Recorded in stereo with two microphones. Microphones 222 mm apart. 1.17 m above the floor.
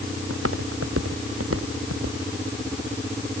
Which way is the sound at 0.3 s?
85° right.